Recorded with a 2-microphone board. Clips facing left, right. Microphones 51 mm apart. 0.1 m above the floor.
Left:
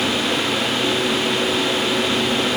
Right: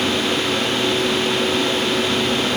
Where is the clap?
No clap in this recording.